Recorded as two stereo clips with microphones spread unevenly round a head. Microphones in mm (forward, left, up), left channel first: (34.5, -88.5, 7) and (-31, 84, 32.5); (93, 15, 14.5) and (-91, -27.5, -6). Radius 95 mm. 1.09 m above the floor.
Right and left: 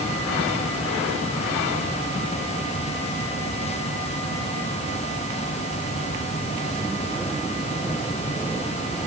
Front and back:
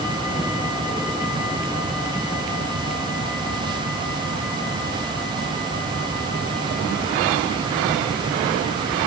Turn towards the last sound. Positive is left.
No sound to turn to.